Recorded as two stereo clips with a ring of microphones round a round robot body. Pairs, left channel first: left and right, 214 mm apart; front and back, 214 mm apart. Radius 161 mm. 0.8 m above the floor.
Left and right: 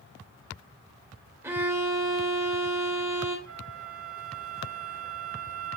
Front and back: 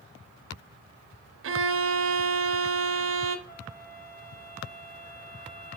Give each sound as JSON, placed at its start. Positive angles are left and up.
{"t": 1.4, "sound": "a violin", "azimuth_deg": -170, "distance_m": 0.8}
{"t": 3.5, "sound": "a flute", "azimuth_deg": -65, "distance_m": 2.5}